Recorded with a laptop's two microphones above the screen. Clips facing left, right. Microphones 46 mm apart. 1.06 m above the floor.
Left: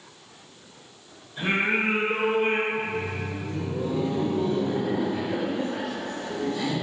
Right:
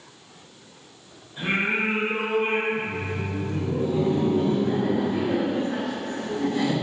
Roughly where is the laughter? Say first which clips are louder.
Even; right.